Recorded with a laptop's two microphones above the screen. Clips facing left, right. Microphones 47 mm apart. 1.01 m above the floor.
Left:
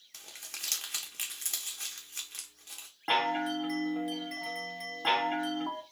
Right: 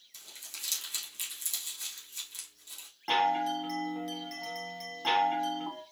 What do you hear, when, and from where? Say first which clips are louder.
0.1 s crumpling: left 2 dB; 50° left (ahead or behind), 0.9 m
3.1 s a chime: right 2 dB; 15° left (ahead or behind), 0.9 m